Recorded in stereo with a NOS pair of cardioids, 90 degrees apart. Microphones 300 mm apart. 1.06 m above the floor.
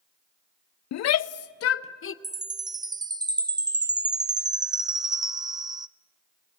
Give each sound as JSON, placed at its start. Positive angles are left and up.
{"t": 0.9, "sound": "a shout", "azimuth_deg": 65, "distance_m": 0.7}
{"t": 2.2, "sound": "a chime", "azimuth_deg": -15, "distance_m": 0.7}